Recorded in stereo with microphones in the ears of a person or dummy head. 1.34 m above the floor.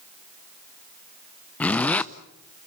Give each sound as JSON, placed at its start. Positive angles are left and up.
{"t": 1.6, "sound": "a zipper", "side_deg": 10, "distance_m": 0.7}